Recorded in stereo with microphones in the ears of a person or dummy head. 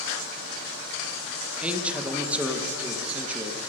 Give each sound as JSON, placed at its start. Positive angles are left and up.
{"t": 1.6, "sound": "a man speaking", "side_deg": -10, "distance_m": 0.9}